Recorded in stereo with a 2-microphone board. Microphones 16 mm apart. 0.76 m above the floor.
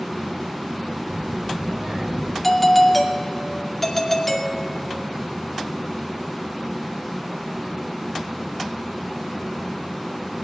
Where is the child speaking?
40° right (ahead or behind), 2.5 m.